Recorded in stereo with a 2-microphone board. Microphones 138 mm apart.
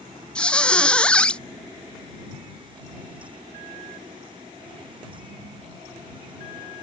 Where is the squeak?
10° left (ahead or behind).